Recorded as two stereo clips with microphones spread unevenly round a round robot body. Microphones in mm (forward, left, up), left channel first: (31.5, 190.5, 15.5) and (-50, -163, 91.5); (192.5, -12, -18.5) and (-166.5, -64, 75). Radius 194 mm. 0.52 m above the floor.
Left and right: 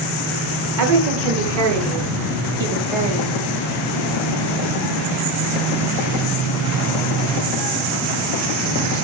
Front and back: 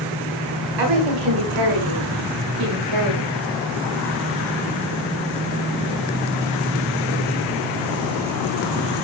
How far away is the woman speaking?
About 4.5 m.